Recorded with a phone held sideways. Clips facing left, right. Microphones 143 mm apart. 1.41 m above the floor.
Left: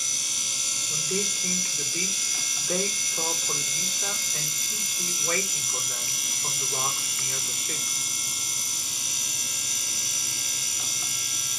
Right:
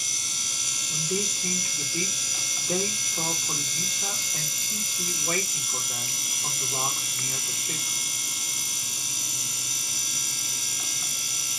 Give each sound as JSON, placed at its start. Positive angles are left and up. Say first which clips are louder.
{"t": 0.9, "sound": "a man speaking", "louder": "right 1 dB", "side_deg": -30, "distance_m": 2.5}